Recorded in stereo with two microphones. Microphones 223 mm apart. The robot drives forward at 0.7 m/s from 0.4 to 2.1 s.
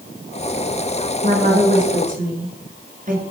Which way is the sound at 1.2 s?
45° right (ahead or behind).